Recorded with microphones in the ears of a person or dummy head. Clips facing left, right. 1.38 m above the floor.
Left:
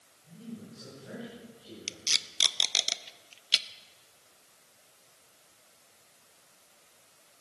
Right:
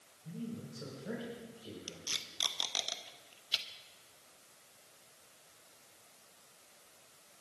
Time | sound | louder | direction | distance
0.2 | a man speaking | right 1 dB | 55° right (ahead or behind) | 5 m
1.9 | tape being pulled | left 2 dB | 30° left (ahead or behind) | 0.6 m